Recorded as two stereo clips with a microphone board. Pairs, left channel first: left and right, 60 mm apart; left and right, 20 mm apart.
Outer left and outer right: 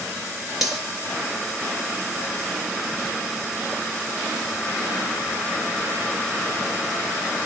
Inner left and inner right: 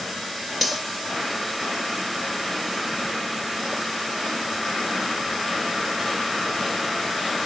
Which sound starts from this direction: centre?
Cutlery clinking, at 0.6 s.